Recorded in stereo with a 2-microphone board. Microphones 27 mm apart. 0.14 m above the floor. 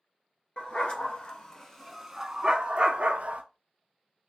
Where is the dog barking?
40° left (ahead or behind), 1.0 m; by 3.4 s 55° right (ahead or behind), 0.9 m.